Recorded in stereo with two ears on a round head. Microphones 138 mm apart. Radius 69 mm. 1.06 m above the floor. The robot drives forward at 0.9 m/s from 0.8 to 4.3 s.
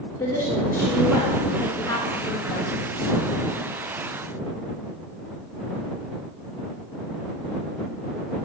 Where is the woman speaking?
15° left (ahead or behind), 3.5 m; by 2.7 s 30° left (ahead or behind), 1.9 m.